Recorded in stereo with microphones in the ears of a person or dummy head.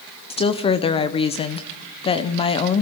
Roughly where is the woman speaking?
Left.